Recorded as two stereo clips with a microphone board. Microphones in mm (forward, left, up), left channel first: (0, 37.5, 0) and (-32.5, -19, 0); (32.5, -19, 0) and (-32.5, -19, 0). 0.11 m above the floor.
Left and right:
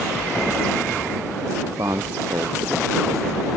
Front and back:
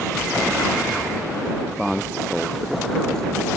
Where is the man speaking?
95° right; by 3.5 s 85° right.